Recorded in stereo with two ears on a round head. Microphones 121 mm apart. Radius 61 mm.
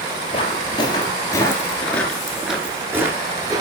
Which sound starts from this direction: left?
Footsteps, at 0.3 s.